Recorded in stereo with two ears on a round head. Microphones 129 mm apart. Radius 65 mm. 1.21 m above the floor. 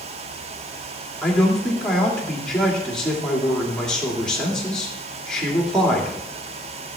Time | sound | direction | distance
1.2 | a man speaking | 5° left (ahead or behind) | 2.5 m